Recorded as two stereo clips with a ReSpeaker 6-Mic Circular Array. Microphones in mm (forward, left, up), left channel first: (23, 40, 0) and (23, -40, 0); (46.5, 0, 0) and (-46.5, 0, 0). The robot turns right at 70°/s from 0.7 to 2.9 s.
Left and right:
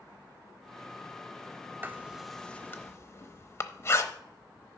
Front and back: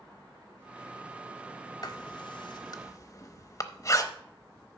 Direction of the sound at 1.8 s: 30° right.